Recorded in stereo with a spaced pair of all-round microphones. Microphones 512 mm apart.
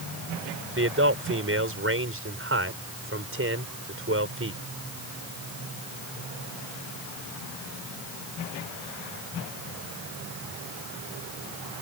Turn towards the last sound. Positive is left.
turn(degrees=-25)  # may be behind; listen again after turning